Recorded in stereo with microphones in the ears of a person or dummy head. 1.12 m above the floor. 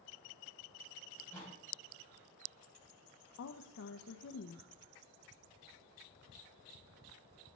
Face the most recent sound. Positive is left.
turn(degrees=55)  # may be behind; listen again after turning